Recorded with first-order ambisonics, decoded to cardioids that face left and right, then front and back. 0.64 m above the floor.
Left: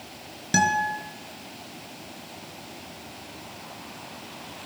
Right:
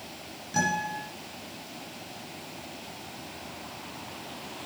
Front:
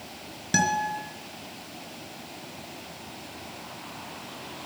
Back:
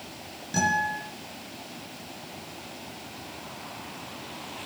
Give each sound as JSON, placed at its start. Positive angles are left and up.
{"t": 0.5, "sound": "a guitar", "azimuth_deg": 55, "distance_m": 3.0}